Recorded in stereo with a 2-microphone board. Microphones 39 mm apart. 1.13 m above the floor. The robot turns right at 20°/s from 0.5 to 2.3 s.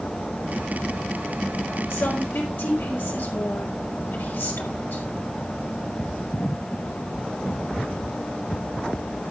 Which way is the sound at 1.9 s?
80° left.